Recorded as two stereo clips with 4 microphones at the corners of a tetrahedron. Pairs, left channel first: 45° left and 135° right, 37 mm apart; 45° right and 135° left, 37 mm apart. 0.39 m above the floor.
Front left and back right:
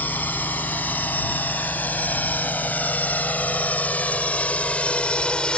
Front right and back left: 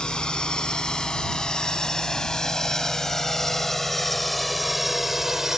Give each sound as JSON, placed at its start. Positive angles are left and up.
{"t": 0.0, "sound": "a drone", "azimuth_deg": 20}